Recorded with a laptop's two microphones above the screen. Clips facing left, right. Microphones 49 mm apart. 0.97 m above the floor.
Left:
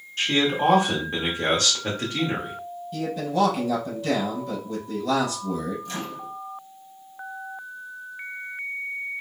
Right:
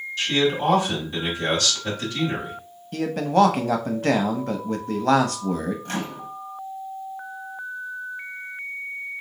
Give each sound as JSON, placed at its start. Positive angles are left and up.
{"t": 0.2, "sound": "a man speaking", "side_deg": 45, "distance_m": 1.2}
{"t": 2.9, "sound": "a man speaking", "side_deg": -55, "distance_m": 0.6}
{"t": 5.8, "sound": "a microwave", "side_deg": -50, "distance_m": 0.6}